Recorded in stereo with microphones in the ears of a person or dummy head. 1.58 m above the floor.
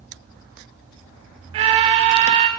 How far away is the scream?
About 0.6 m.